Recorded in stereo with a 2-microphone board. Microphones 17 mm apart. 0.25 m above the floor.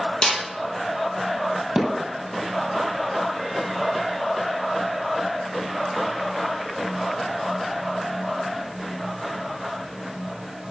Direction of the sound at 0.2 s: 65° left (ahead or behind).